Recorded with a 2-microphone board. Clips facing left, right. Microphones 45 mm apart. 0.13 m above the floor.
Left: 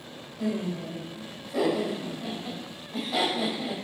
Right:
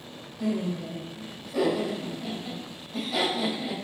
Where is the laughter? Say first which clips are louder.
Right 1 dB; 30° left (ahead or behind), 5.5 m.